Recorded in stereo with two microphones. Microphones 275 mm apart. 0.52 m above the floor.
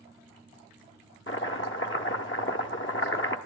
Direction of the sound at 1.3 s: 45° left (ahead or behind).